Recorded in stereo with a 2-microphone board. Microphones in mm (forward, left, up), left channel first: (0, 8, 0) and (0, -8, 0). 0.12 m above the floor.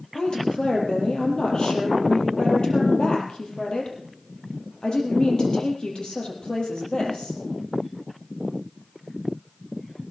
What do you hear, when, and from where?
0.1 s a woman speaking: 60° left (ahead or behind), 4 m